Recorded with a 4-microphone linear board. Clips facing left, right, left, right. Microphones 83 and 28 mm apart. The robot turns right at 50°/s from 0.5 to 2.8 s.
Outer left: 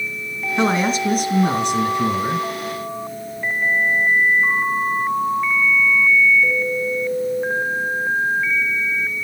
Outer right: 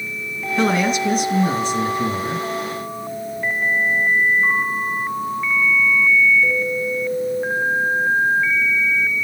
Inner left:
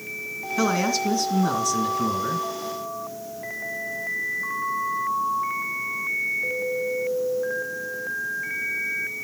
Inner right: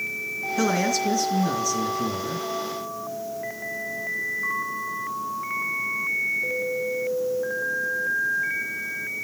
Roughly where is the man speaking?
Ahead.